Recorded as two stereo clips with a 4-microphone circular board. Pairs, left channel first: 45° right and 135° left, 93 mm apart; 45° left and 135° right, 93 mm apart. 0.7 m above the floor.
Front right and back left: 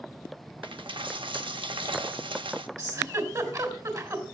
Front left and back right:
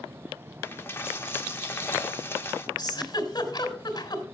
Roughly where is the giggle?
Left.